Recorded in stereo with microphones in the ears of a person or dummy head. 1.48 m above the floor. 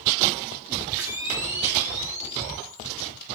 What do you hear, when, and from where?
1.0 s a camera shutter: 15° right (ahead or behind), 4 m